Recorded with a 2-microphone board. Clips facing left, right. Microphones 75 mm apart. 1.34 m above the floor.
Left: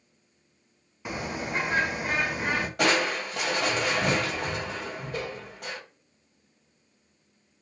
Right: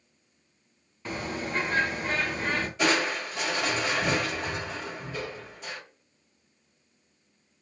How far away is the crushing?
About 1.5 m.